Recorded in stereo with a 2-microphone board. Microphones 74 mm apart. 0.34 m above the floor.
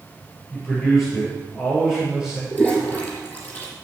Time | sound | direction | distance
0.5 | a man speaking | centre (ahead or behind) | 6 m
2.5 | a toilet flushing | 20° left (ahead or behind) | 4 m